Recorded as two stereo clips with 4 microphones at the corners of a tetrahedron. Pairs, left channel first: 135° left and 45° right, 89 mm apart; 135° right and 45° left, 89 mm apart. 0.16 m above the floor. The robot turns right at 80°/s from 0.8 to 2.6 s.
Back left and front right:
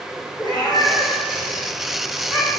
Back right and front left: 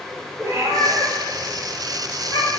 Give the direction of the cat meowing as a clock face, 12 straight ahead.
9 o'clock.